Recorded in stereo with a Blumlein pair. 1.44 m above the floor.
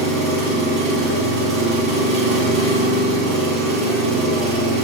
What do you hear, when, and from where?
0.0 s an engine running: 40° right, 0.9 m